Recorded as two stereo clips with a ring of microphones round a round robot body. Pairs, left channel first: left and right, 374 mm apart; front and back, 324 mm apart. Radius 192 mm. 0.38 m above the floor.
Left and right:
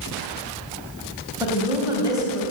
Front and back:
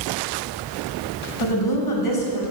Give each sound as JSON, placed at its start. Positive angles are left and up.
{"t": 1.4, "sound": "a woman speaking", "azimuth_deg": -10, "distance_m": 3.0}